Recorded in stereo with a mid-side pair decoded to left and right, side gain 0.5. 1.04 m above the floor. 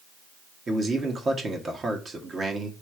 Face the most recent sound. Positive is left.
turn(degrees=-35)